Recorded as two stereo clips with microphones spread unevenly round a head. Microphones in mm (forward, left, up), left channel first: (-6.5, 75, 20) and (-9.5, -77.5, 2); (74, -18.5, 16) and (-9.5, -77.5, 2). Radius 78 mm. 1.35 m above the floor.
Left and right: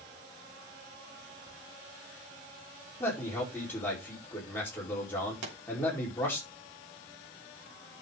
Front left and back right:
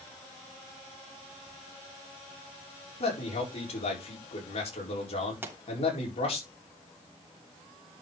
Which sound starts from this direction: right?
A pop, at 5.4 s.